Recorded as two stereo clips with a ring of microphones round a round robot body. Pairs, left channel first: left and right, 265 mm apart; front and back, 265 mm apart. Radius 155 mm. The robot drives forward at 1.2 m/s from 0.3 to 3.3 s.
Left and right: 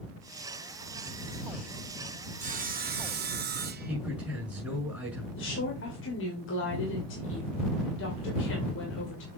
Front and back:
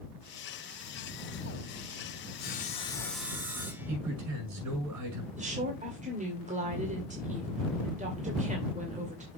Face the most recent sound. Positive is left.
turn(degrees=120)